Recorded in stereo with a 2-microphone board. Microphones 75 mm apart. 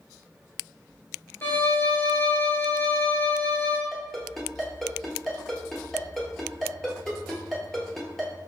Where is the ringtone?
5° left (ahead or behind), 1.3 m.